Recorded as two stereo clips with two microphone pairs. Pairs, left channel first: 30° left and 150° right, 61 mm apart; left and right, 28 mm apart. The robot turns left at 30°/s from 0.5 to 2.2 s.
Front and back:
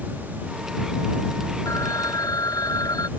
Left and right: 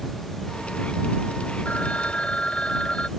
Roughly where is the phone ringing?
Ahead left.